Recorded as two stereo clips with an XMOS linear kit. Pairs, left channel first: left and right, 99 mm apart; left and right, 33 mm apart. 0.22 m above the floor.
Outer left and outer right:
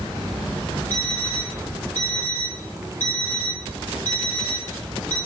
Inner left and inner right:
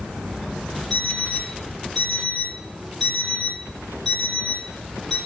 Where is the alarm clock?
20° left (ahead or behind), 1.7 m.